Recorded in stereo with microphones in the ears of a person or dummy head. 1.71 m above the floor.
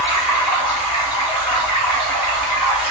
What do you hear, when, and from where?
0.0 s running water: 20° left (ahead or behind), 2.5 m